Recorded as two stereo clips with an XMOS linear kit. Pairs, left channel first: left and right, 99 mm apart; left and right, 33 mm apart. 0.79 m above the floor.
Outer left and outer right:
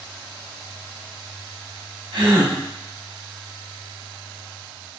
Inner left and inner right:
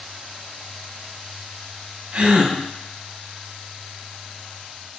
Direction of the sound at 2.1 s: 65° right (ahead or behind).